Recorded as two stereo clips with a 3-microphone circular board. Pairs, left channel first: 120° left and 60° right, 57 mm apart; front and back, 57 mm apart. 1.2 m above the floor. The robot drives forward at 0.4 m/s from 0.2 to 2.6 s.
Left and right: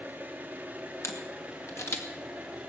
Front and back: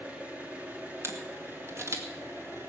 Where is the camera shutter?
145° left, 1.8 m; by 2.1 s 155° left, 2 m.